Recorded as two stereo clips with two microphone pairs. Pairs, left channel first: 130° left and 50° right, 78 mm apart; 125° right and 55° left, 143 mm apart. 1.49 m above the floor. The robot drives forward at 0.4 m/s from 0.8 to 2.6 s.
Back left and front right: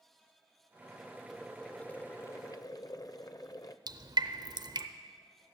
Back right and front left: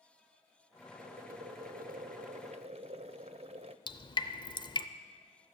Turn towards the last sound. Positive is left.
turn(degrees=-70)